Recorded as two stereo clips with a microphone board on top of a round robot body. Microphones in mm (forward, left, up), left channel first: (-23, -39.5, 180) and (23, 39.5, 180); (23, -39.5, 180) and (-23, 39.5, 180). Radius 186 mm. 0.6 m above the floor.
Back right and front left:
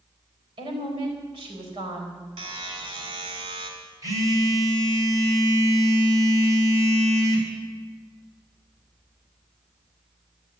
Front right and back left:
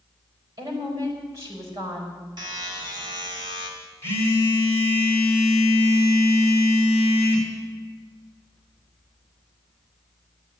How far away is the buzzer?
About 3 m.